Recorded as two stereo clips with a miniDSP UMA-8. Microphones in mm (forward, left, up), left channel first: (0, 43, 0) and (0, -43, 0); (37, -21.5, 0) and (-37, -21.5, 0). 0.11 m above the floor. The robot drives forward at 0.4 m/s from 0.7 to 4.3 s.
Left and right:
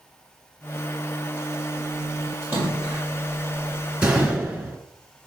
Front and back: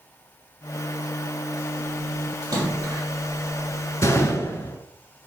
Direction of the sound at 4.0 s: 25° right.